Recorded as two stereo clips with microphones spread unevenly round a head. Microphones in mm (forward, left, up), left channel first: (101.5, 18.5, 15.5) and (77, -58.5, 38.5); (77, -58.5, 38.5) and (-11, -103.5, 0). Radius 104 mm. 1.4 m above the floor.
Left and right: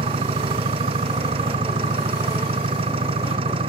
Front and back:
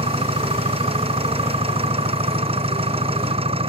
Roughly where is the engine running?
Behind right.